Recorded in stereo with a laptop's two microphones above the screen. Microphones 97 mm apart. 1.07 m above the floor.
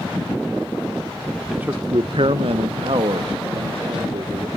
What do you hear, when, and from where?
1.5 s a man speaking: 5° right (ahead or behind), 0.7 m; by 4.5 s 60° right (ahead or behind), 3.5 m